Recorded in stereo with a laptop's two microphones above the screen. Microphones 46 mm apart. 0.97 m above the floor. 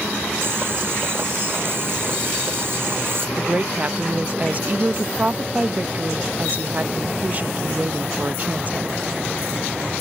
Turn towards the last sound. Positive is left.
turn(degrees=-35)  # may be behind; listen again after turning